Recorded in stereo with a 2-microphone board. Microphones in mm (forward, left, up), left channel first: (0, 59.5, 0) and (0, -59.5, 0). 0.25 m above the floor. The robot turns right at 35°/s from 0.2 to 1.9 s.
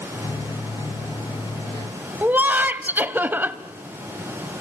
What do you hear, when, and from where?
2.2 s laughter: 15° right (ahead or behind), 1.0 m